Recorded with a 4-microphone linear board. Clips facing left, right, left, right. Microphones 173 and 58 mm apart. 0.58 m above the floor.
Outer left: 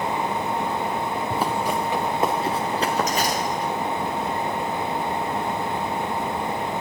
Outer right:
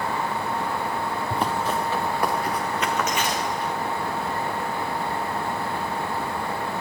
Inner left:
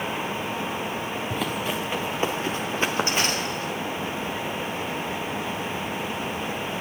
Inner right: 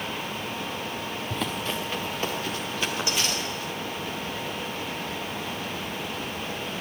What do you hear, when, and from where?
1.3 s running footsteps: 5° left (ahead or behind), 3 m; by 3.7 s 50° left (ahead or behind), 4.5 m